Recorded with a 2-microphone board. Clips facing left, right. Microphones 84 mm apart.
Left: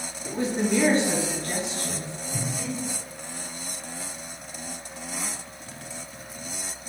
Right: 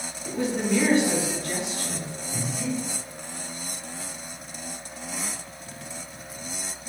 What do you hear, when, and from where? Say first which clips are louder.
0.2 s a woman speaking: even; 40° left (ahead or behind), 1.4 m
2.3 s breathing: right 2 dB; 10° right (ahead or behind), 1.6 m